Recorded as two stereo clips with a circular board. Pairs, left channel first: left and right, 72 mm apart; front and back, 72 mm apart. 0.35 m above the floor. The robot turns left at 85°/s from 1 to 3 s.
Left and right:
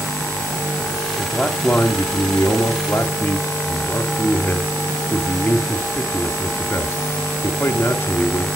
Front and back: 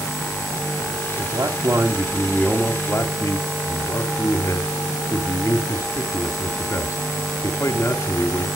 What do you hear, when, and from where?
1.2 s a man speaking: 170° right, 1.9 m; by 8.5 s 35° left, 1.9 m